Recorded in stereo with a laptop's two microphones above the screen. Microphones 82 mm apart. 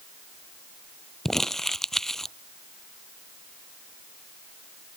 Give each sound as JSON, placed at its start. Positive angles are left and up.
{"t": 1.2, "sound": "crumpling", "side_deg": 5}